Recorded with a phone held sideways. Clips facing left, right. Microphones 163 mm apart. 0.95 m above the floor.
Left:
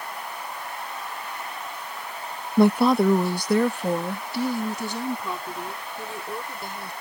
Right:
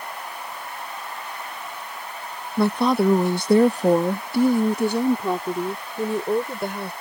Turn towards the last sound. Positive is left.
turn(degrees=-65)  # may be behind; listen again after turning